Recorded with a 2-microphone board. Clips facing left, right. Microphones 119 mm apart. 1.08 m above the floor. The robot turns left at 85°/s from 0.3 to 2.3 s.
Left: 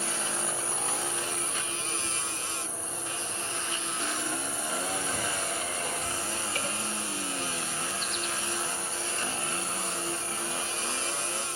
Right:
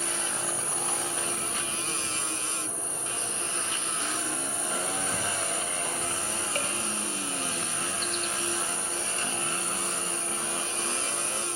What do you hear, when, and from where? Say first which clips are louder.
0.0 s an insect: even; 35° left, 1.5 m; by 11.6 s 135° right, 1.5 m